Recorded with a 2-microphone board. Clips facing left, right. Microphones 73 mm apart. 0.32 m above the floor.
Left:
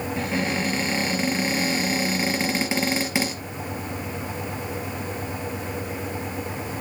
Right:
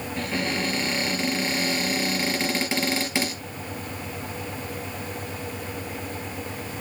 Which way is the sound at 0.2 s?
10° left (ahead or behind).